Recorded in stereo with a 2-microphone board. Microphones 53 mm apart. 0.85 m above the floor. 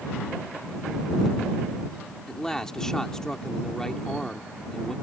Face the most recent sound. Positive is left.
turn(degrees=10)  # may be behind; listen again after turning